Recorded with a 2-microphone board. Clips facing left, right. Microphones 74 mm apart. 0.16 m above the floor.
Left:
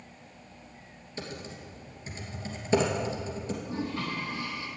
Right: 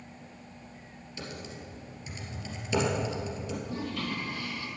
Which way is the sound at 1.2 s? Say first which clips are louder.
Left 2 dB; 35° left (ahead or behind).